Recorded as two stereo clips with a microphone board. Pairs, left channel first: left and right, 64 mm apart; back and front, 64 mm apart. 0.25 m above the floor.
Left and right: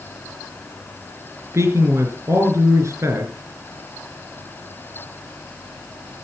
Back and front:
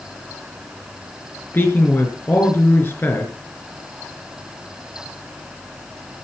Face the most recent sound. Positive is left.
turn(degrees=-125)